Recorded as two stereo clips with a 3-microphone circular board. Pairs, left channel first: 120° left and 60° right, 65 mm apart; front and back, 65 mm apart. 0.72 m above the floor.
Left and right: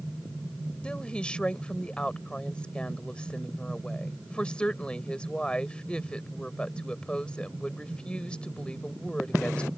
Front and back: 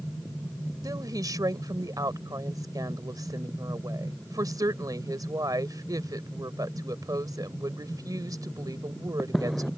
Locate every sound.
0.8 s a woman speaking: 165° right